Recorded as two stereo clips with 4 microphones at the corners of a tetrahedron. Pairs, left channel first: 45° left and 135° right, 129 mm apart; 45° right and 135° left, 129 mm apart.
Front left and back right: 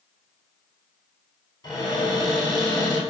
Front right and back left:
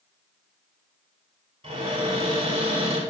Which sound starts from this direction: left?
A cupboard door, at 1.6 s.